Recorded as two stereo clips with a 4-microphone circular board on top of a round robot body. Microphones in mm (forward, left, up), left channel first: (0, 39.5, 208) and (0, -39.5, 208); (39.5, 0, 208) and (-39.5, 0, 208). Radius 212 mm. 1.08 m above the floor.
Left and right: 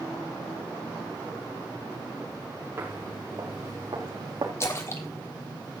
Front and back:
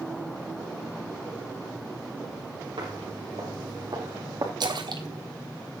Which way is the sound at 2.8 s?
150° right.